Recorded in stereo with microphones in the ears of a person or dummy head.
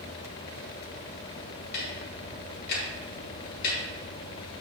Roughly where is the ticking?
Left.